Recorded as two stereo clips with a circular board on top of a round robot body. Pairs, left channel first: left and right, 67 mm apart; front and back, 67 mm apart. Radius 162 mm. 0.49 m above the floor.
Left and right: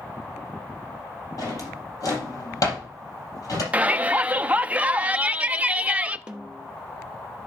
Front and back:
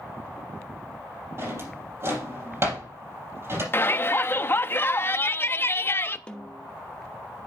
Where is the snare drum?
40° right, 1.4 m.